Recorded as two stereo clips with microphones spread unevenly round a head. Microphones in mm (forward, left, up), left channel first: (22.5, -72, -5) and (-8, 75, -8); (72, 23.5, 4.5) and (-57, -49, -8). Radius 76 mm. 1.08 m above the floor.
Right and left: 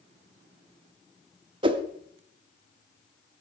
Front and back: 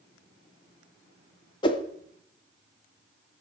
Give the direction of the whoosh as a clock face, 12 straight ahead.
9 o'clock.